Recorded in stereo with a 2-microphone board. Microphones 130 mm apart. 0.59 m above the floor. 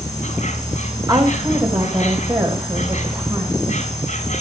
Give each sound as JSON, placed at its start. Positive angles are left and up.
{"t": 0.0, "sound": "an insect", "side_deg": 65, "distance_m": 6.0}
{"t": 1.1, "sound": "a woman speaking", "side_deg": -35, "distance_m": 3.5}